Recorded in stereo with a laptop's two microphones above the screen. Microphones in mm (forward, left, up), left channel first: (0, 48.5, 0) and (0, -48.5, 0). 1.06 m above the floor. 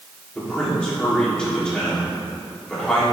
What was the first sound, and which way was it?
A man speaking, 10° left (ahead or behind).